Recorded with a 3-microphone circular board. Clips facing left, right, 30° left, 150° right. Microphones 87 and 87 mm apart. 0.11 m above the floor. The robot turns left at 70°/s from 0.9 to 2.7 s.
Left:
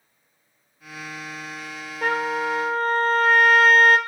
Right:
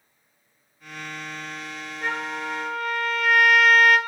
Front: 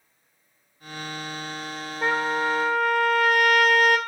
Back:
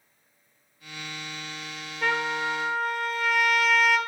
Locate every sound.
2.0 s a trumpet: 90° left, 0.7 m; by 4.0 s 45° left, 0.7 m